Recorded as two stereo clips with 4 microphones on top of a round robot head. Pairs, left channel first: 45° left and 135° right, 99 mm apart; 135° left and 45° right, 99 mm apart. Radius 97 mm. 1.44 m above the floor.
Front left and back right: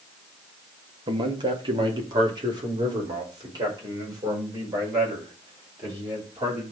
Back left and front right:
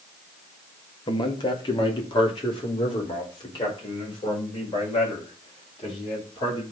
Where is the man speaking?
Straight behind, 1.8 m; by 6.7 s 175° left, 8.5 m.